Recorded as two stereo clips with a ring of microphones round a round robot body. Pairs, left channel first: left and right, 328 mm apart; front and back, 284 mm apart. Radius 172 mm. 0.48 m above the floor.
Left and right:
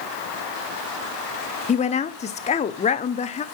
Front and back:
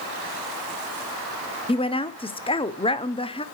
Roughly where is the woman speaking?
Ahead left.